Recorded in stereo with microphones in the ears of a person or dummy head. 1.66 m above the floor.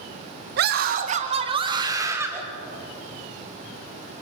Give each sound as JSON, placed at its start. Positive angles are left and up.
{"t": 0.6, "sound": "a scream", "side_deg": -60, "distance_m": 2.0}